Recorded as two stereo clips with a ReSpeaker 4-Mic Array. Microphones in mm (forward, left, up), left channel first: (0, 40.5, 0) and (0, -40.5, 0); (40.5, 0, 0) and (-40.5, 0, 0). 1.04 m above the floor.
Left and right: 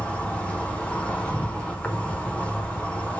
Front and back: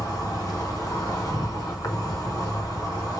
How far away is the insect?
About 0.9 m.